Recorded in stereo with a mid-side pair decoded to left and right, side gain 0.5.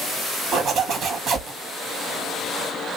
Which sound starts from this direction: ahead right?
A zipper, at 0.5 s.